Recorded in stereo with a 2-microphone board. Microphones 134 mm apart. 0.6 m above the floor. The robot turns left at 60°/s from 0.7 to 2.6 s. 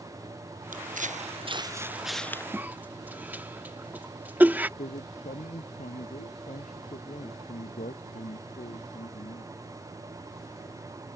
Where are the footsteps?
85° right; by 2.4 s 20° left (ahead or behind).